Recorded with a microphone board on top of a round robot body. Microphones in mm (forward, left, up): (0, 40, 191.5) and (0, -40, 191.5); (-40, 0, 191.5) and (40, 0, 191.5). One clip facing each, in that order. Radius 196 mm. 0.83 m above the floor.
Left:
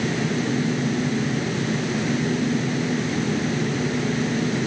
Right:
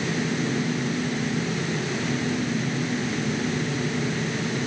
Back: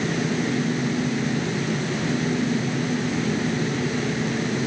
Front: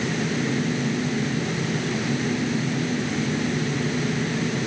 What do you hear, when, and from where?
Only background noise.